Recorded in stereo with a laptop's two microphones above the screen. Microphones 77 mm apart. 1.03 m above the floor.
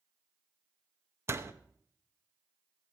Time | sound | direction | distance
1.3 | a door slam | 35° right (ahead or behind) | 0.7 m